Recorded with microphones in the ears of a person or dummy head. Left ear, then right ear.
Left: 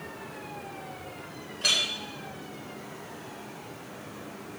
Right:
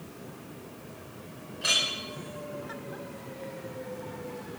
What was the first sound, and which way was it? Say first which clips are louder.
A clink: left 1 dB; 20° left (ahead or behind).